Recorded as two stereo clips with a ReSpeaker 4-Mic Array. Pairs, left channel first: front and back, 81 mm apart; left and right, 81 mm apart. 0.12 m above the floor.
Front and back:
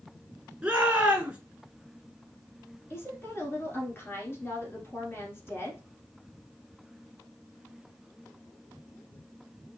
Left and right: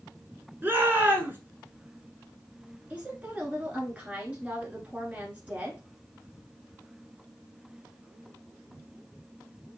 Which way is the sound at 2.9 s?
30° right.